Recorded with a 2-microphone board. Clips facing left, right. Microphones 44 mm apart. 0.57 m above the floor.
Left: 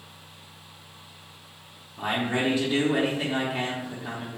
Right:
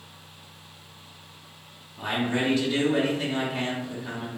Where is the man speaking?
20° left (ahead or behind), 0.6 m.